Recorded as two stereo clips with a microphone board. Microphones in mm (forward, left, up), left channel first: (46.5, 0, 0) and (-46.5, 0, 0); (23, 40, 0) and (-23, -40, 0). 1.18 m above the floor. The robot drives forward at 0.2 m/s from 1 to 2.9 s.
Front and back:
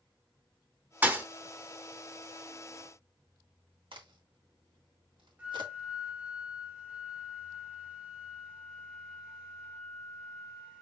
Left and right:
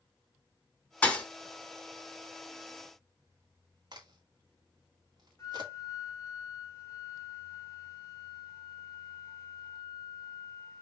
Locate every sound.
1.0 s a thud: 125° left, 0.9 m; by 1.2 s 130° left, 0.9 m
3.9 s a crack: 155° right, 1.7 m
5.4 s a flute: 110° left, 1.8 m